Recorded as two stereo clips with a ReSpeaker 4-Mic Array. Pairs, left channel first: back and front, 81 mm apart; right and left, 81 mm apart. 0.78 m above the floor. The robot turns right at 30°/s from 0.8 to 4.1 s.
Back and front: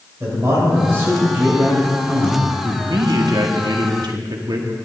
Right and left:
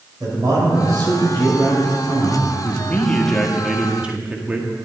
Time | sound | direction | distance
0.2 | a man speaking | 50° left | 3.5 m
2.6 | a man speaking | 30° right | 1.2 m